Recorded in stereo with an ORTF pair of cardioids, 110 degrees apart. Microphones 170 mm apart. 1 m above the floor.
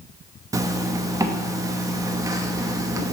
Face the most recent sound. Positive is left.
turn(degrees=-20)